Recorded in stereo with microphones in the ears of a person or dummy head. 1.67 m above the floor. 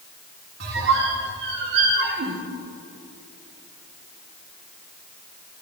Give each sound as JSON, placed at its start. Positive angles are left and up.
{"t": 0.6, "sound": "a squeak", "side_deg": -55, "distance_m": 1.5}